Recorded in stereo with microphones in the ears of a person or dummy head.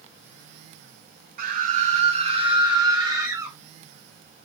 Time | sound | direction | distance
1.4 | a scream | 45° right (ahead or behind) | 1.0 m